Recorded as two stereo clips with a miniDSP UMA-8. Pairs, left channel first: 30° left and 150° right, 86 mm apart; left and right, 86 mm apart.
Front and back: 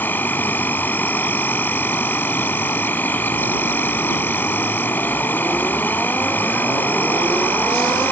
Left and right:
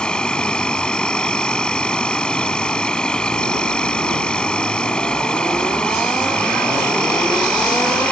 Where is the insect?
30° left.